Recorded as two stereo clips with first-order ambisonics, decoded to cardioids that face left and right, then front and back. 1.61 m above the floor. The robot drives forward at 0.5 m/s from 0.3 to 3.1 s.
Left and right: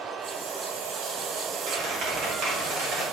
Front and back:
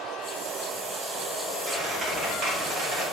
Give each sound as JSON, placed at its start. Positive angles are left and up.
{"t": 1.7, "sound": "a squeak", "azimuth_deg": -120, "distance_m": 2.0}